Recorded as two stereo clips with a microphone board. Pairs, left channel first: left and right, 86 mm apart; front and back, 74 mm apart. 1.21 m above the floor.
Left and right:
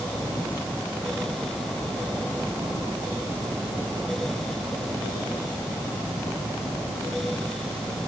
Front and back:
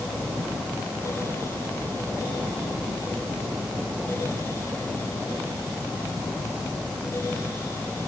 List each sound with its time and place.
Only background noise.